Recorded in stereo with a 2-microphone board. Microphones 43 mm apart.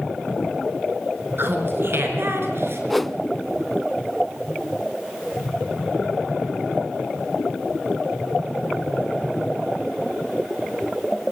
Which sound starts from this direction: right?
Laughter, at 1.4 s.